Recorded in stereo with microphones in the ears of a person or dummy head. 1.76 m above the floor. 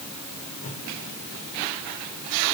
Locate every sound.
0.6 s a whoosh: 40° left (ahead or behind), 4 m